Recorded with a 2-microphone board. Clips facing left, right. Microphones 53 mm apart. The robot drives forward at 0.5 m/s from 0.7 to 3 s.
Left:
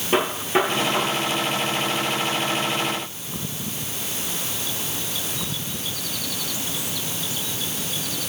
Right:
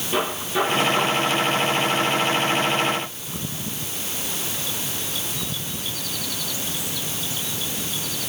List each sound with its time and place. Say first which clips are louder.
0.1 s a gunshot: left 3 dB; 50° left (ahead or behind), 6 m